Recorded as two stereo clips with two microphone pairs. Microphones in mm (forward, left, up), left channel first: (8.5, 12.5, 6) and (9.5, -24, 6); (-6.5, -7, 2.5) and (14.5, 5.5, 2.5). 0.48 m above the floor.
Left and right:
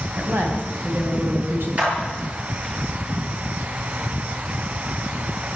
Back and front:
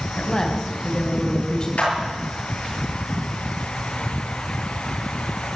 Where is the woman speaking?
105° right, 4 m.